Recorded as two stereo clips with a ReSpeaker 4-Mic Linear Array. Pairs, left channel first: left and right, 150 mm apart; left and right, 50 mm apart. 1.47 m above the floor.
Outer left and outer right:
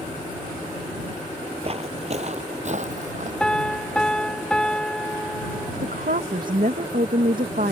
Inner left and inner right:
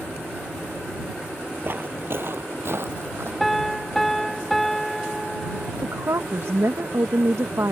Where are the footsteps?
40° right (ahead or behind); by 3.3 s 55° right (ahead or behind).